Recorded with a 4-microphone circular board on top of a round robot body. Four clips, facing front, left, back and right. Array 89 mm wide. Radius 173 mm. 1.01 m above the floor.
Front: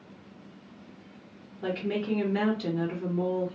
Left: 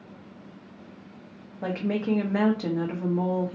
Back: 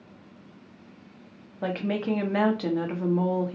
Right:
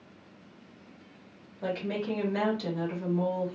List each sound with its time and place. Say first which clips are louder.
1.6 s a woman speaking: left 4 dB, back 2 dB; 150° left, 1.3 m